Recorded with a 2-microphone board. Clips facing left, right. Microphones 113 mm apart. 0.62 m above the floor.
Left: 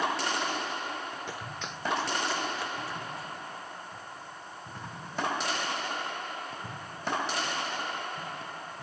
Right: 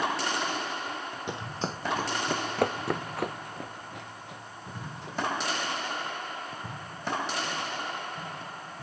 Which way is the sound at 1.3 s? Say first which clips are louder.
Right 5 dB; 20° right (ahead or behind).